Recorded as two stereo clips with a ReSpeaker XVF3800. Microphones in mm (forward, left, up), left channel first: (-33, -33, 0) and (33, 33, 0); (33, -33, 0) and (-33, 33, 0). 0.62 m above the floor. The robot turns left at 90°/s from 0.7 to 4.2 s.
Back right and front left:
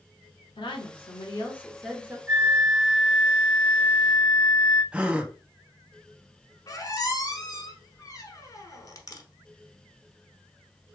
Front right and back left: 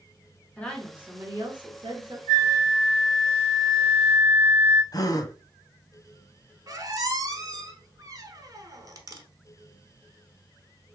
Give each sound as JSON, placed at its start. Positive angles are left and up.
{"t": 0.6, "sound": "a woman speaking", "azimuth_deg": -120, "distance_m": 1.4}
{"t": 2.3, "sound": "a flute", "azimuth_deg": 130, "distance_m": 2.0}
{"t": 4.9, "sound": "a gasp", "azimuth_deg": -25, "distance_m": 0.5}
{"t": 6.7, "sound": "a squeak", "azimuth_deg": 180, "distance_m": 0.9}